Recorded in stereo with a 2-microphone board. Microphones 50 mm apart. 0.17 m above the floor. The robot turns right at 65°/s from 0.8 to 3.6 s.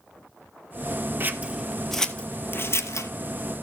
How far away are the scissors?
About 0.8 m.